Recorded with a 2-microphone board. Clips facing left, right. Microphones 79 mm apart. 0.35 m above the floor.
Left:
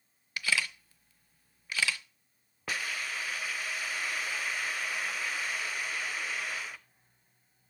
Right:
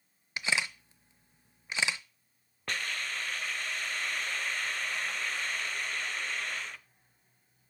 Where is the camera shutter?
20° right (ahead or behind), 0.5 m.